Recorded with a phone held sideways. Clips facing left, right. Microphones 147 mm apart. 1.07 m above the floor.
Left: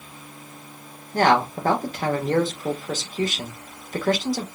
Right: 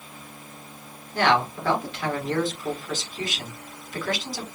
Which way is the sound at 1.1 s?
40° left (ahead or behind).